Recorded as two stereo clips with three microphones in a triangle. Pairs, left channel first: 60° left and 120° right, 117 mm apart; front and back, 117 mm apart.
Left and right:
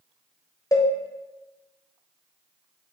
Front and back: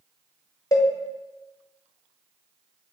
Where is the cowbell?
25° left, 0.8 m.